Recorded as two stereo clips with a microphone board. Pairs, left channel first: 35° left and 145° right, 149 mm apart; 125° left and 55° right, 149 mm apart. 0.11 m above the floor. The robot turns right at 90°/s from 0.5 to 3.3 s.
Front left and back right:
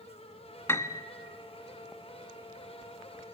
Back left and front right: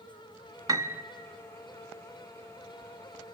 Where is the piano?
20° right, 0.5 m; by 1.0 s 10° left, 0.5 m.